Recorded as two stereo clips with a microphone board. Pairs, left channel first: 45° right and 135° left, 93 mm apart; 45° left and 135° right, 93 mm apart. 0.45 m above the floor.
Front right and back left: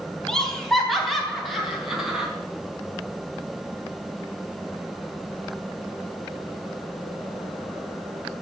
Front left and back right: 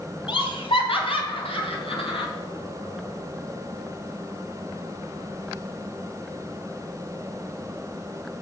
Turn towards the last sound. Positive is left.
turn(degrees=50)